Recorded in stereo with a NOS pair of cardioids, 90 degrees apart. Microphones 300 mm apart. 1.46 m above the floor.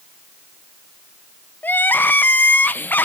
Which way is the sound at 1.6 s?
5° left.